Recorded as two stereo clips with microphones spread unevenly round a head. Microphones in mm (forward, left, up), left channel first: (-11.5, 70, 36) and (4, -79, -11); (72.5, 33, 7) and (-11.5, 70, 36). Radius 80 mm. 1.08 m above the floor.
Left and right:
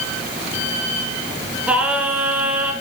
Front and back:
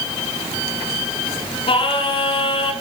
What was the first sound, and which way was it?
Singing, 10° left.